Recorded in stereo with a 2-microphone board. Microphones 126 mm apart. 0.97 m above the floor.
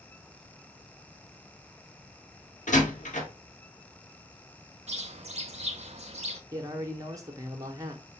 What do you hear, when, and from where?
2.7 s a door slam: 80° left, 0.9 m
4.9 s a bird: 55° right (ahead or behind), 0.6 m
6.5 s a man speaking: 25° right (ahead or behind), 0.7 m